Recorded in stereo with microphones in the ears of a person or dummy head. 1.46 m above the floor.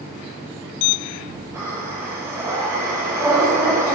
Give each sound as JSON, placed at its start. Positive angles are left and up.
{"t": 1.5, "sound": "breathing", "side_deg": -20, "distance_m": 7.5}